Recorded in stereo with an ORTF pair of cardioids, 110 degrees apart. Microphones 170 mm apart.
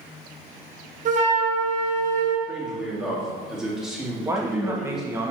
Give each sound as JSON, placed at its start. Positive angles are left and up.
{"t": 1.1, "sound": "a flute", "azimuth_deg": -45, "distance_m": 1.4}
{"t": 2.5, "sound": "a man speaking", "azimuth_deg": -5, "distance_m": 2.5}
{"t": 4.2, "sound": "a man speaking", "azimuth_deg": -15, "distance_m": 1.4}